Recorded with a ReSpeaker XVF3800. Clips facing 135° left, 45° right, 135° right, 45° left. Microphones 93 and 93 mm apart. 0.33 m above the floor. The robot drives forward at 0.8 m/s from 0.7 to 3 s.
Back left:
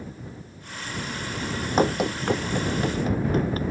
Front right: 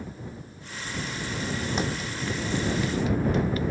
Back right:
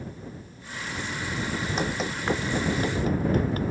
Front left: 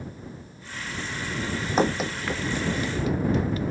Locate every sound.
1.8 s running footsteps: 90° left; by 3.7 s 175° right